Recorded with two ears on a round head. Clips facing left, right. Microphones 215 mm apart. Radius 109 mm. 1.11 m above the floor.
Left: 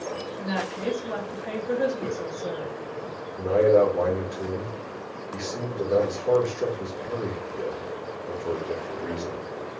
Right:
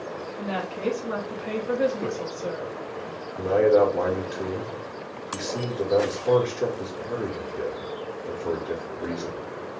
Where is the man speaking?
15° right (ahead or behind), 3.5 m.